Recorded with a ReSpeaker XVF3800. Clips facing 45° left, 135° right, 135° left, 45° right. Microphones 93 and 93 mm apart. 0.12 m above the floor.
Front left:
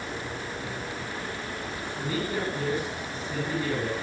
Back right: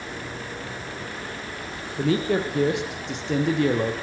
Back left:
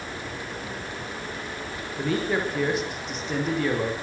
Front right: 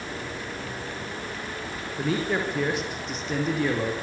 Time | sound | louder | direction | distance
2.0 | a man speaking | back right 8 dB, back left 1 dB | 135° right | 6.5 m